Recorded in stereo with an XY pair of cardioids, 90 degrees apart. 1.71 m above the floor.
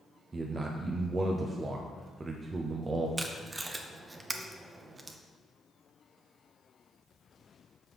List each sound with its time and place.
0.3 s a man speaking: 35° right, 0.6 m
3.2 s tape being pulled: 30° right, 0.7 m